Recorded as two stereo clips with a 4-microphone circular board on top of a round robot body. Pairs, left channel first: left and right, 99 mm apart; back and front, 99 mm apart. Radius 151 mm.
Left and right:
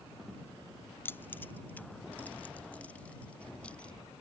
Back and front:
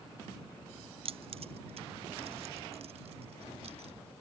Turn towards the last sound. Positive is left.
turn(degrees=10)